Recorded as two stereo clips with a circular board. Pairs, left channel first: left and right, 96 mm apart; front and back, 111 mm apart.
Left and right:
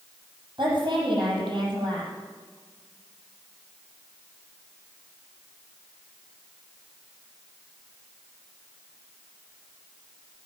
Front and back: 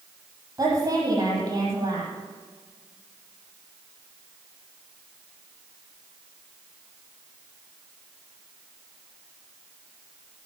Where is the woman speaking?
120° right, 6.5 m.